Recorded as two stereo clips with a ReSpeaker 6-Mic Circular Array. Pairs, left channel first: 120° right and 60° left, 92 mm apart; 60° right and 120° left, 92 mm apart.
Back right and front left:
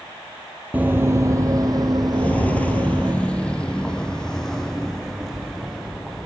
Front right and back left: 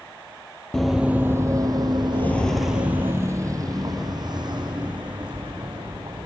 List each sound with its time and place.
0.7 s running footsteps: 15° left, 1.4 m; by 3.1 s 105° left, 3.5 m
2.1 s footsteps: 65° right, 1.4 m; by 6.3 s 155° left, 5.5 m